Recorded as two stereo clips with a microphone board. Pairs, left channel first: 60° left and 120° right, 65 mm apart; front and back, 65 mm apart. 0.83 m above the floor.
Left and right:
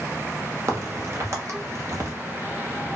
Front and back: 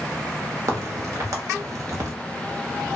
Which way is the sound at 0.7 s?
155° right.